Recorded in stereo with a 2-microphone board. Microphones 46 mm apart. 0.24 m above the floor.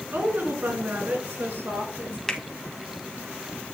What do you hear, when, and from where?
0.1 s a woman speaking: 45° right (ahead or behind), 2.5 m
2.3 s a finger snap: 15° left (ahead or behind), 1.5 m